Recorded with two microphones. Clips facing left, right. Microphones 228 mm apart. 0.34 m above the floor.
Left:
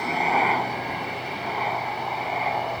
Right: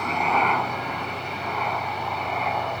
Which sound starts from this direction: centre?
A helicopter, at 0.0 s.